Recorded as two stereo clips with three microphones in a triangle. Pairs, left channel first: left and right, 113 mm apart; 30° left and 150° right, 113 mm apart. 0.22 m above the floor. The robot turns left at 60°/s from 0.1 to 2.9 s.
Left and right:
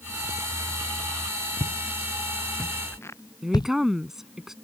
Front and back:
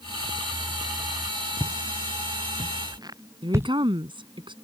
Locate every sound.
1.6 s footsteps: 95° right; by 3.7 s 140° left
3.4 s a woman speaking: 175° right